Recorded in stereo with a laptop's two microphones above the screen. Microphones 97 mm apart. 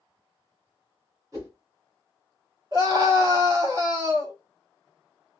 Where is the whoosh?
35° right (ahead or behind), 1.8 m.